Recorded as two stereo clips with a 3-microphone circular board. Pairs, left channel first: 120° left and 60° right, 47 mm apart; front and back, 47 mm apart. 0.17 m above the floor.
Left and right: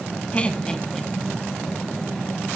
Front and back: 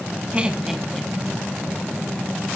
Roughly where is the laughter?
Behind left.